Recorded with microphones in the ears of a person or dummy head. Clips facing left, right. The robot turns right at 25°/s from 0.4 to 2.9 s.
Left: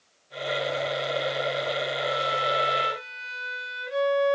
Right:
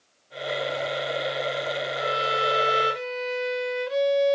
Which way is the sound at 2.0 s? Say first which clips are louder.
Right 1 dB; 50° right (ahead or behind).